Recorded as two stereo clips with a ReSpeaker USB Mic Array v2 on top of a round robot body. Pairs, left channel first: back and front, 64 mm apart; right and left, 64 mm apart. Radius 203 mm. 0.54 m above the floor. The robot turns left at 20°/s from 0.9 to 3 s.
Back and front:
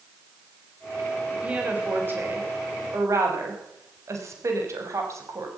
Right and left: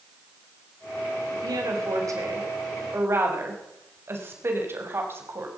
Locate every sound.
1.3 s a woman speaking: 75° left, 5.5 m; by 5.5 s 40° left, 5.5 m